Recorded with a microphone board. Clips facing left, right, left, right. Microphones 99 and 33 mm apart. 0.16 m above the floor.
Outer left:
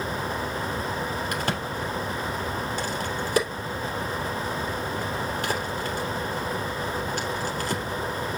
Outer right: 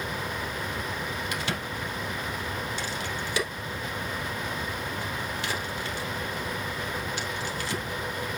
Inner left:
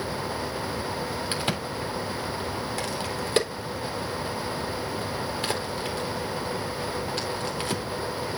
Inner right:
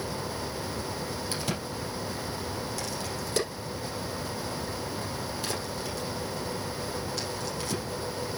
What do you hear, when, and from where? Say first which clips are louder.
1.3 s a crack: outer left 4 dB, inner left 4 dB; 45° left (ahead or behind), 3 m